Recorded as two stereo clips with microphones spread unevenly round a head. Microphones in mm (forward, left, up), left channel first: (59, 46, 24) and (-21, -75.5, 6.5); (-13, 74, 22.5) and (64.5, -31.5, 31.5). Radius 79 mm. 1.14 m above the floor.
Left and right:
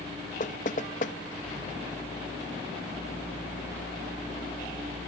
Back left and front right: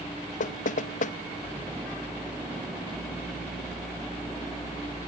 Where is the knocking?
100° left, 0.8 m.